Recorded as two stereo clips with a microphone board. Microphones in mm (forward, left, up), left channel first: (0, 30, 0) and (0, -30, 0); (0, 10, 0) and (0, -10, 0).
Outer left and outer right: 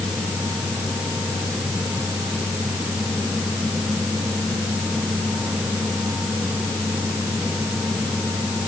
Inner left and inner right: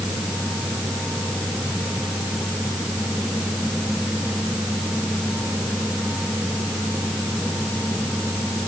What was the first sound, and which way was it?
Only background noise.